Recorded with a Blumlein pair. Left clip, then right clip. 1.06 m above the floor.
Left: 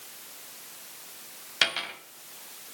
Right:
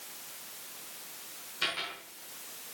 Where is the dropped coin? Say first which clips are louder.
Left 7 dB; 40° left, 2.5 m.